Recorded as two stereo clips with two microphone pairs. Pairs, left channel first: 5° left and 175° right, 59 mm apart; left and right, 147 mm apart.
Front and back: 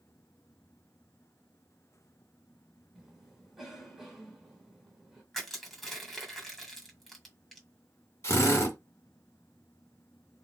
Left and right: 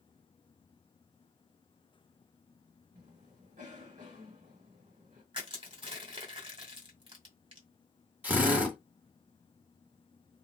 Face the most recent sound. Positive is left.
turn(degrees=-15)